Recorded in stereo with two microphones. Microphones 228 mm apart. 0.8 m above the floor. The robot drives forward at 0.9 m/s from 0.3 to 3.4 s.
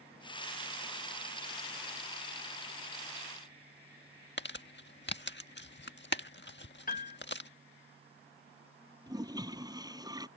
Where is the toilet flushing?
15° right (ahead or behind).